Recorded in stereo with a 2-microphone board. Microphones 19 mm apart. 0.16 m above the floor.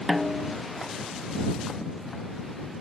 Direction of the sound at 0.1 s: 20° right (ahead or behind).